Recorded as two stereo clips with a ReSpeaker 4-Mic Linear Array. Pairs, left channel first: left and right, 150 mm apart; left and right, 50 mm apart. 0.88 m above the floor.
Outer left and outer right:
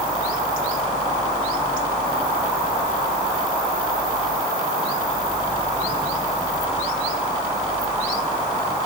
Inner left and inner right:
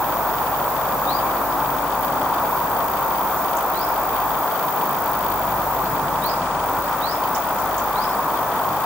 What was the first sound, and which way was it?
Only background noise.